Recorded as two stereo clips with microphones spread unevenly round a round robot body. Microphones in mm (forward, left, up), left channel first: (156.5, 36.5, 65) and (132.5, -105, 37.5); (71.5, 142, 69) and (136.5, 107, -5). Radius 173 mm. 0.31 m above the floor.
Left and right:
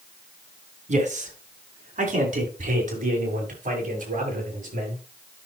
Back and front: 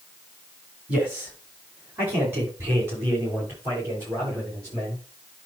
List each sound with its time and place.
0.9 s a man speaking: 80° right, 3.5 m; by 5.0 s 75° right, 8.5 m